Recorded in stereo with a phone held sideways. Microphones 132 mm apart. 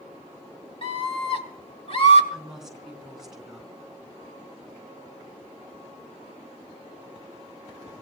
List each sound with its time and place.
0.8 s a scream: 50° left (ahead or behind), 2 m
2.3 s a woman speaking: 5° right (ahead or behind), 3.5 m